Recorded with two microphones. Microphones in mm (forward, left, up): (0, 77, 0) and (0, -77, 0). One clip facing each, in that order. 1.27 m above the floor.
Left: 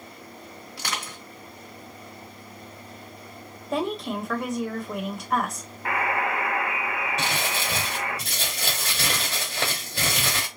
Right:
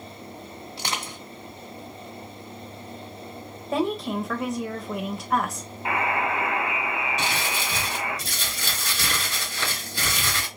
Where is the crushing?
25° right (ahead or behind), 1.2 m.